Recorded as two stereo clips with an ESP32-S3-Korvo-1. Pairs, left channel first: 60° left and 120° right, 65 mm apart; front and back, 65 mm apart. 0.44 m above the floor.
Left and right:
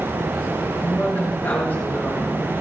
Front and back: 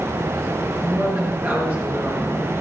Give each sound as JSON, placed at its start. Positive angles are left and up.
{"t": 0.8, "sound": "a woman speaking", "azimuth_deg": 120, "distance_m": 5.0}